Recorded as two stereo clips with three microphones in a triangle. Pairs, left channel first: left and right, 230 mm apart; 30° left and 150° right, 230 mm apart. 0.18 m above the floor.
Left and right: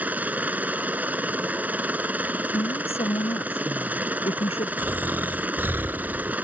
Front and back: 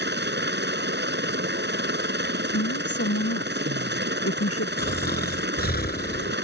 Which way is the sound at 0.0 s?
170° right.